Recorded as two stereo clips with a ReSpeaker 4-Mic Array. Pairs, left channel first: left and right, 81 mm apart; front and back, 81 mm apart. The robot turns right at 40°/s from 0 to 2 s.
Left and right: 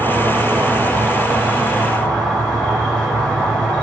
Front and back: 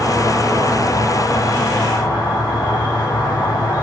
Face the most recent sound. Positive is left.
turn(degrees=10)